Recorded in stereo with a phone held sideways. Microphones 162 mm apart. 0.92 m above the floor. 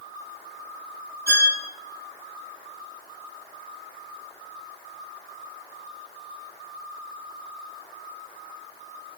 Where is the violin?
20° right (ahead or behind), 3 m.